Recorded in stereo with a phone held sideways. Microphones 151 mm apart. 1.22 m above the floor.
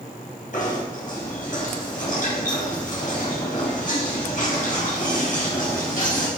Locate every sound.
0.5 s knocking: 55° left (ahead or behind), 5.5 m